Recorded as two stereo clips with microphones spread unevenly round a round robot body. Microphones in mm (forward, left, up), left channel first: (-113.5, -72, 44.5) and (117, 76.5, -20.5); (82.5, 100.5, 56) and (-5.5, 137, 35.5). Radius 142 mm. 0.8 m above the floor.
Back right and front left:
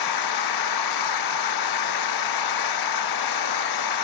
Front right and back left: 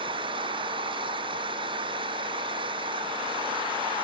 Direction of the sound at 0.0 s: 145° right.